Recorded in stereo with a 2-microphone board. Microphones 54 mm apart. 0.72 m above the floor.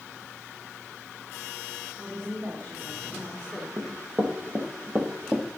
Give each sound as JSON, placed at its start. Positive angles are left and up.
{"t": 2.0, "sound": "a woman speaking", "side_deg": -70, "distance_m": 2.5}
{"t": 3.8, "sound": "running footsteps", "side_deg": -65, "distance_m": 1.8}